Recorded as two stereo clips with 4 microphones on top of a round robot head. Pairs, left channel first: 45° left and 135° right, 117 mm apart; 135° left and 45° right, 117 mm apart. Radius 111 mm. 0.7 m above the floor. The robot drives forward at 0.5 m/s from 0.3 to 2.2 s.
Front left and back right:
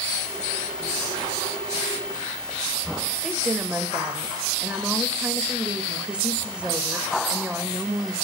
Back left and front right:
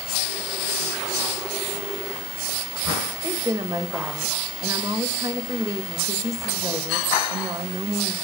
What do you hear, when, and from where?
3.2 s a woman speaking: 65° right, 1.1 m